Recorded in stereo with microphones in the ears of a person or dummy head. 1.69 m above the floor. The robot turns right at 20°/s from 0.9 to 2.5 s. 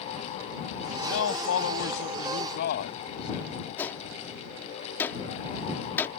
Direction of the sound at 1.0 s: 85° left.